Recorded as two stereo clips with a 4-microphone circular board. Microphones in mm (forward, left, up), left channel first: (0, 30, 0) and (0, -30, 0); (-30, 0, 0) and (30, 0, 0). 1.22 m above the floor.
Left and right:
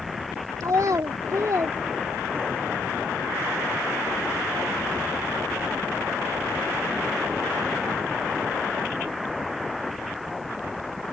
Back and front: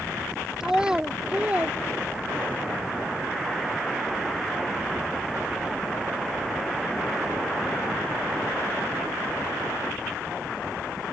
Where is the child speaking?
80° right; by 2.6 s 50° right.